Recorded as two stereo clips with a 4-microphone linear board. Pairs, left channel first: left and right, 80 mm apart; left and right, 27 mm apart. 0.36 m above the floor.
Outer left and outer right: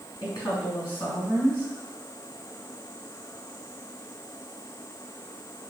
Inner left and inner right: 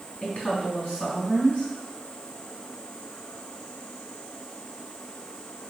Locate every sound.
0.2 s a woman speaking: 65° left (ahead or behind), 3 m